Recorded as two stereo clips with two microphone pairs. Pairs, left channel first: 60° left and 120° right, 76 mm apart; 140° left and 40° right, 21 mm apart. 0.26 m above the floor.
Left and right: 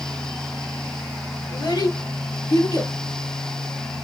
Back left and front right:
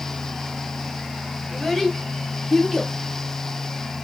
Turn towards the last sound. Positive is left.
turn(degrees=40)